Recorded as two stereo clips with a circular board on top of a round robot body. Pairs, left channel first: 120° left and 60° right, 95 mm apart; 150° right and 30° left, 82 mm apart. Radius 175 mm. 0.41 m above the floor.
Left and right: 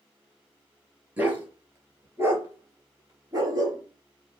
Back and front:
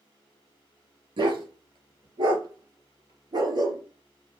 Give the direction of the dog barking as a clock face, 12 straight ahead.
12 o'clock.